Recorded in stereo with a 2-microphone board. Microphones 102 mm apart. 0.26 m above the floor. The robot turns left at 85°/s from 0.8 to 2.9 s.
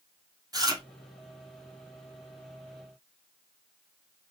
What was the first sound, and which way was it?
Chewing, 40° right (ahead or behind).